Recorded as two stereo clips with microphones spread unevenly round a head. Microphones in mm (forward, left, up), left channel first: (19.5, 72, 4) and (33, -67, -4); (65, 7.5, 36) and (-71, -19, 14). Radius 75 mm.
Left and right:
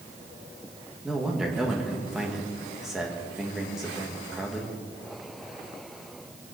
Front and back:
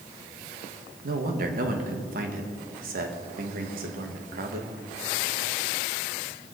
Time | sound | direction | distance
1.0 | a man speaking | 170° right | 1.9 m